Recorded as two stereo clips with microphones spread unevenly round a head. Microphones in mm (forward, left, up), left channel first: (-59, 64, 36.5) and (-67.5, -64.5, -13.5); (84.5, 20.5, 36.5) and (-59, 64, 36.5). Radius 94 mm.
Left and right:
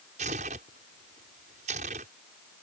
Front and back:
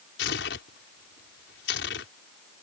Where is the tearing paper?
35° right.